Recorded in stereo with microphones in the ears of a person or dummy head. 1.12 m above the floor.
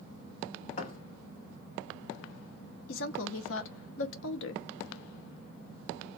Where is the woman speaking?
65° left (ahead or behind), 0.6 m.